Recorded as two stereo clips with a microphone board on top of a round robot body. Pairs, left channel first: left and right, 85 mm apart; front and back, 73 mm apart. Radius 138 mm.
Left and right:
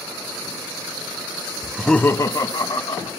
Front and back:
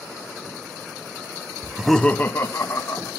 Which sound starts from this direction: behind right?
Laughter, at 1.6 s.